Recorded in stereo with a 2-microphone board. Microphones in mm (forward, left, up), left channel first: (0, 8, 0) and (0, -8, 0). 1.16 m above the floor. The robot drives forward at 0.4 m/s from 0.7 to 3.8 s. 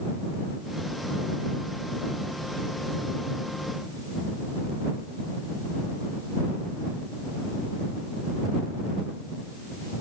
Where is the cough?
I don't hear a cough.